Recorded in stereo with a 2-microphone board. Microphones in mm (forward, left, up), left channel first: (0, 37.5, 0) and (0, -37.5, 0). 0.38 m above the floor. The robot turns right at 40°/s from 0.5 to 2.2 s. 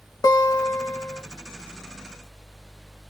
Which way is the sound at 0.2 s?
65° left (ahead or behind).